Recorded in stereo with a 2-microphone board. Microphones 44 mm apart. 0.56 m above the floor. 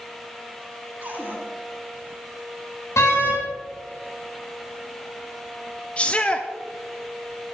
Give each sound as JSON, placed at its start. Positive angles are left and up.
{"t": 1.0, "sound": "a cupboard door", "side_deg": -40, "distance_m": 5.5}
{"t": 3.0, "sound": "a door slam", "side_deg": 80, "distance_m": 4.0}
{"t": 6.0, "sound": "a shout", "side_deg": 30, "distance_m": 0.7}